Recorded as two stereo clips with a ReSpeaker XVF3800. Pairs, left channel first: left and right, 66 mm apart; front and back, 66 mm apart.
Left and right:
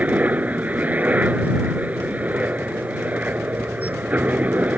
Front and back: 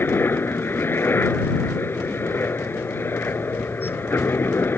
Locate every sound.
0.0 s a helicopter: 35° right